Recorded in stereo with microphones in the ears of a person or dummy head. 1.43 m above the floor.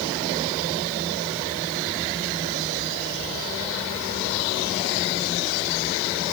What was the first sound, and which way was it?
Only background noise.